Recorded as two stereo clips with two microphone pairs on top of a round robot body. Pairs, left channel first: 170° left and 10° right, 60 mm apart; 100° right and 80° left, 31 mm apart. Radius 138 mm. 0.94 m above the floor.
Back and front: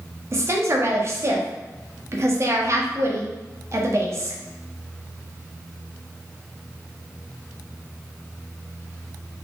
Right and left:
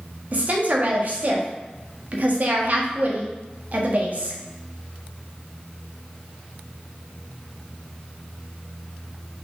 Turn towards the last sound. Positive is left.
turn(degrees=35)